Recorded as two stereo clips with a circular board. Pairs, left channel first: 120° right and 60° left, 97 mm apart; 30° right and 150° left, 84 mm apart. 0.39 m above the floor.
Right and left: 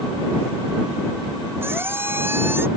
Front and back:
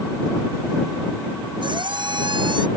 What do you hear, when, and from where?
1.6 s a squeak: 125° left